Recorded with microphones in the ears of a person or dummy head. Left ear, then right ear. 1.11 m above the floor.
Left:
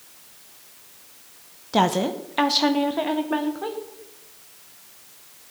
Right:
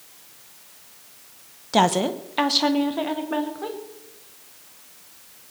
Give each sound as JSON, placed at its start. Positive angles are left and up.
{"t": 1.7, "sound": "a woman speaking", "side_deg": -20, "distance_m": 0.7}